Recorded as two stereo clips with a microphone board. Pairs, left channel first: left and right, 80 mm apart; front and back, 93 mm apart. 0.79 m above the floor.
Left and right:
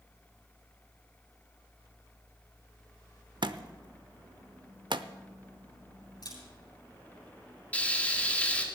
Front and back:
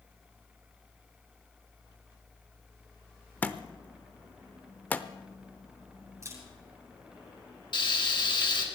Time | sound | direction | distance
3.4 | a thud | 70° right | 0.7 m
6.2 | a camera shutter | 125° left | 8.5 m
7.7 | frying | 20° left | 2 m